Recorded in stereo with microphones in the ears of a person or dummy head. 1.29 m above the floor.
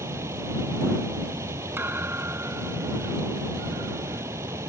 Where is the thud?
10° right (ahead or behind).